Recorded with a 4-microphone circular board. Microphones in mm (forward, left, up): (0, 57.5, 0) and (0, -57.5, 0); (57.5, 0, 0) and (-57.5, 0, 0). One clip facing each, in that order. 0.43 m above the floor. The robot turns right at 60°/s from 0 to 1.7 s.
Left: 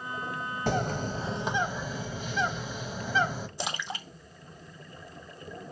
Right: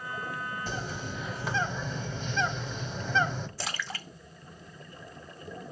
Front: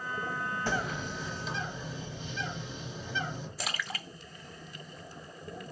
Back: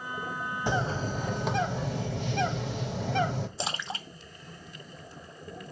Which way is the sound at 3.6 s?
145° left.